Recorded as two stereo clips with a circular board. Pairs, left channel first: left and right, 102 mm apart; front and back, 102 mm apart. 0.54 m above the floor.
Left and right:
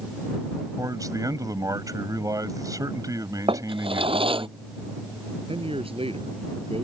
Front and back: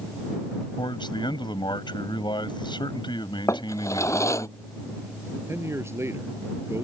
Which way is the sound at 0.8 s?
40° right.